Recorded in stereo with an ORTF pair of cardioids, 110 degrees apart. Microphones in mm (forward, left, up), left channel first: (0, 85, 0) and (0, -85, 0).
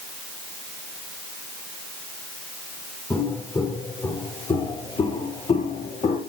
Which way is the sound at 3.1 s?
15° left.